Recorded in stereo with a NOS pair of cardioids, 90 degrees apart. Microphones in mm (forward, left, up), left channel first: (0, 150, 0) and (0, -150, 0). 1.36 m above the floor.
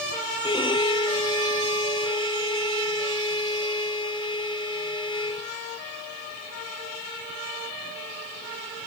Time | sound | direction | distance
0.4 | a violin | 15° left | ?